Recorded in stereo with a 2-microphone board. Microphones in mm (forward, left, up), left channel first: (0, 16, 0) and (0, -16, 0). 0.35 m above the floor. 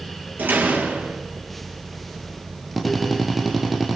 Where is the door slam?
70° right (ahead or behind), 6 m.